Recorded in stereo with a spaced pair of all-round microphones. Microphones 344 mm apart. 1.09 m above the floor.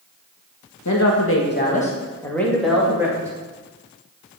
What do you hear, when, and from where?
0.8 s a woman speaking: 55° left (ahead or behind), 1.3 m; by 3.3 s 10° right (ahead or behind), 2.5 m